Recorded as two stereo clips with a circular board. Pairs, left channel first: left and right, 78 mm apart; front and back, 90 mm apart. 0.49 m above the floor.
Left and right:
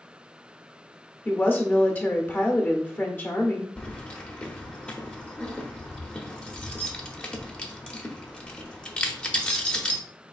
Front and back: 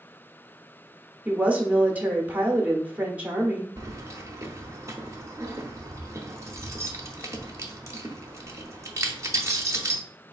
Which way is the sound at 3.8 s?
155° left.